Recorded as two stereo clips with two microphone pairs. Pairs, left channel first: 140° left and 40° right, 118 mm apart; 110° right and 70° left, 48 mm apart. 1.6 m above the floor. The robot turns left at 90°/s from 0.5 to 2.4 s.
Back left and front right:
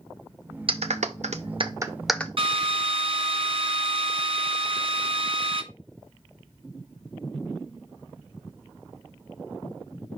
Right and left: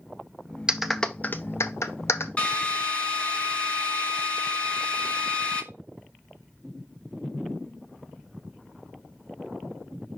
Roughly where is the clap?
Ahead.